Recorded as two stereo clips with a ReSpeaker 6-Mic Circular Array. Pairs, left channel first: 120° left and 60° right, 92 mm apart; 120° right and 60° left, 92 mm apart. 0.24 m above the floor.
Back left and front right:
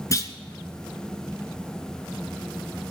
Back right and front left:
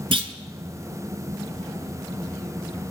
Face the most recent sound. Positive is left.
turn(degrees=65)